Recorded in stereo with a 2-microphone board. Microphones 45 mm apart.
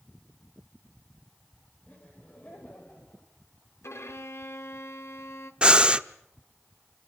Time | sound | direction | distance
1.9 | laughter | 40° left (ahead or behind) | 4 m
3.8 | a violin | 75° left (ahead or behind) | 1.8 m
5.6 | breathing | 25° right (ahead or behind) | 0.7 m